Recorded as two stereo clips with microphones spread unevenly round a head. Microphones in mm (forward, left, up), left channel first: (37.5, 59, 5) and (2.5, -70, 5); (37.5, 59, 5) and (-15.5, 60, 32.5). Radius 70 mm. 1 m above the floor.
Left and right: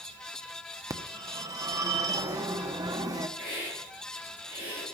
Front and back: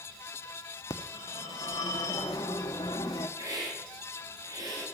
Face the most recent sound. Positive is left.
turn(degrees=175)